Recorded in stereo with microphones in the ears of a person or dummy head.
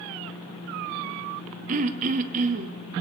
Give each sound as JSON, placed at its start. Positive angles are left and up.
{"t": 1.7, "sound": "throat clearing", "side_deg": -40, "distance_m": 1.0}